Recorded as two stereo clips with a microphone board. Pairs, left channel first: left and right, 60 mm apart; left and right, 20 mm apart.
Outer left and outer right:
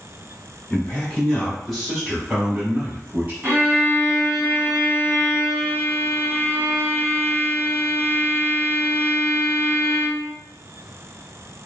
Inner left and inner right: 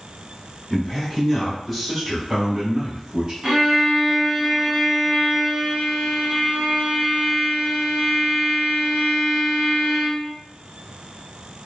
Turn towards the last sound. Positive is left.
turn(degrees=-35)  # may be behind; listen again after turning